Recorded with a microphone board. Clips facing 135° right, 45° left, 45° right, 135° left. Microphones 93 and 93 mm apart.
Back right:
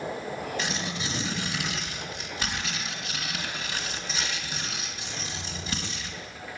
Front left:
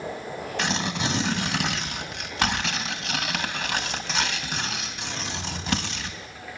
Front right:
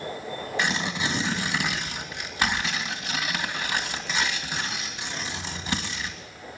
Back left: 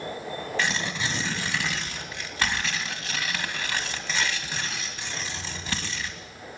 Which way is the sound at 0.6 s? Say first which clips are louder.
Front left 5 dB, front right 2 dB; 30° left.